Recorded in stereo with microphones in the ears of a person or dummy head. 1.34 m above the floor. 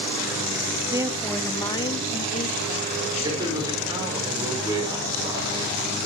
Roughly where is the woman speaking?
Right.